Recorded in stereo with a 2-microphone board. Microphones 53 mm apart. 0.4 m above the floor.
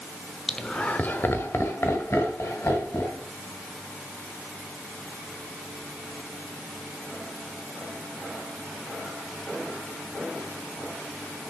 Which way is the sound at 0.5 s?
Centre (ahead or behind).